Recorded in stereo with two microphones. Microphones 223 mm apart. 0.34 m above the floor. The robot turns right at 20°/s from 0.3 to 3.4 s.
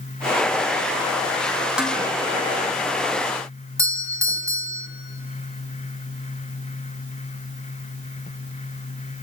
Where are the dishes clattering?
5° right (ahead or behind), 1.9 m; by 2.0 s centre (ahead or behind), 1.9 m.